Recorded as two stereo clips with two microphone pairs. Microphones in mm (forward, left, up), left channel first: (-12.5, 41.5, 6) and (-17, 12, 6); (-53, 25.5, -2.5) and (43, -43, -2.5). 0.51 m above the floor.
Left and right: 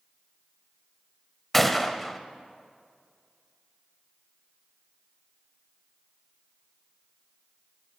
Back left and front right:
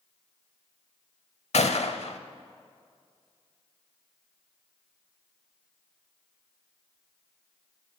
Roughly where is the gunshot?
Behind.